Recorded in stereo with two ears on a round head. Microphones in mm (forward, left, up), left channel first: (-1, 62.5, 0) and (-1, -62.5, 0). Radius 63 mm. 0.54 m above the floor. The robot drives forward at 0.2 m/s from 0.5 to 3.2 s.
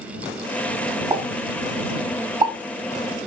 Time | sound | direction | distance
1.1 | a pop | 35° right (ahead or behind) | 4 m